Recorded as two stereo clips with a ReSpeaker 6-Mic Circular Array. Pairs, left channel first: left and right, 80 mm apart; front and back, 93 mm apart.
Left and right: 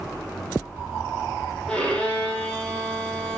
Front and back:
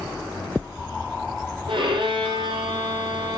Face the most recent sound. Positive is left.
turn(degrees=170)